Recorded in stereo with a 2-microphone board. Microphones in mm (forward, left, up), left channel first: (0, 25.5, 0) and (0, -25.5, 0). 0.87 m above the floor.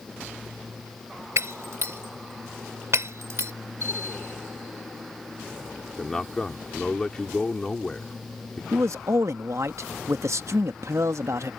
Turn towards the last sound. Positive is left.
turn(degrees=-70)  # may be behind; listen again after turning